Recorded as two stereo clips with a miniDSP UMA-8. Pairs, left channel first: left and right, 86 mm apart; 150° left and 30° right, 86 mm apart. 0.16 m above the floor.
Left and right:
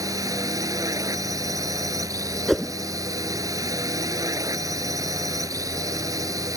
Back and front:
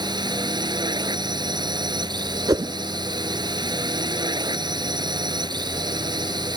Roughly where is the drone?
Ahead right.